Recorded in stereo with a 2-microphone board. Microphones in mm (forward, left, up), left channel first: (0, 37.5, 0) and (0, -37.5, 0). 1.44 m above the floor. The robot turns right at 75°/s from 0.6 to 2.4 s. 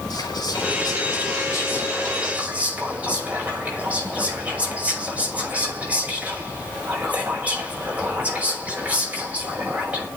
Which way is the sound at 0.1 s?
65° left.